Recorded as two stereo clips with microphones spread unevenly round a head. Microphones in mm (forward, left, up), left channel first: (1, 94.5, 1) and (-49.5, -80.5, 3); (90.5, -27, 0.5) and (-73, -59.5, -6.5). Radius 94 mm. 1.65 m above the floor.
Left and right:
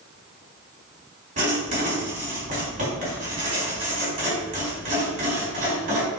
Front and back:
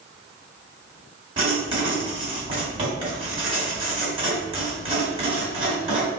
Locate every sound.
1.4 s writing: 125° right, 1.6 m